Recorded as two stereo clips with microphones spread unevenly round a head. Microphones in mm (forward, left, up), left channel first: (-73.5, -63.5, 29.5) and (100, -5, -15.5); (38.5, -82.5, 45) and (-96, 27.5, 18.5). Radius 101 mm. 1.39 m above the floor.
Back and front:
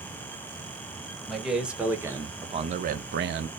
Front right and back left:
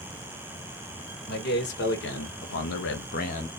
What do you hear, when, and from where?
1.3 s a man speaking: 70° right, 1.6 m; by 3.5 s 25° left, 0.8 m